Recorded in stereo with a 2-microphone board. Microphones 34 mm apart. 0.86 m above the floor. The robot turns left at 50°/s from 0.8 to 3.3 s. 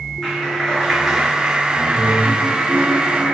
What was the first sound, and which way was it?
A clap, 10° left.